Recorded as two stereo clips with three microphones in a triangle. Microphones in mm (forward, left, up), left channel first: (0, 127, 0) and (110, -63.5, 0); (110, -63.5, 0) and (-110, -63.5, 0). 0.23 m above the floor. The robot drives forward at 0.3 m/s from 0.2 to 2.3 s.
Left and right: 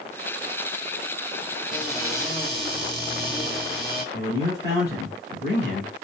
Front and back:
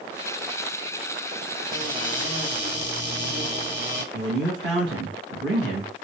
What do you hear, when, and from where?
1.7 s a cupboard door: 145° right, 1.4 m; by 4.0 s 150° right, 1.5 m
4.1 s a man speaking: 160° left, 2.5 m